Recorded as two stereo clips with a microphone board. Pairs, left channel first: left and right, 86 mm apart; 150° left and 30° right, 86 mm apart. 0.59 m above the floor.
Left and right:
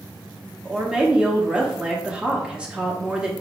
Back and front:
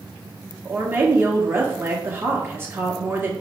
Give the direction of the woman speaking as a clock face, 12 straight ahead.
1 o'clock.